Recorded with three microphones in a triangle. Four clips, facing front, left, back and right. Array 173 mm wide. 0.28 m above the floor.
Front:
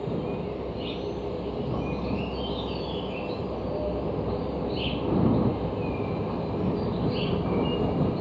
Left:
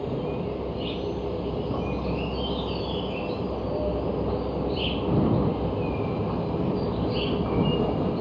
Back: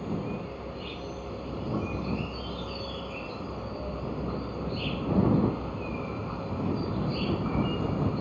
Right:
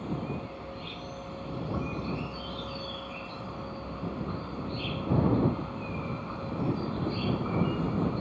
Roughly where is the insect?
Ahead left.